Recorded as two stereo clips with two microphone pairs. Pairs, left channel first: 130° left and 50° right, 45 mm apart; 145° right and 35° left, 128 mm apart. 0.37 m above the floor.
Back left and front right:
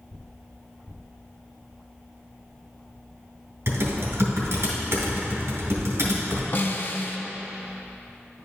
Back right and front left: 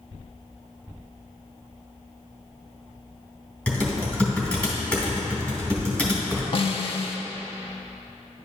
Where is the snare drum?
170° left, 0.5 m.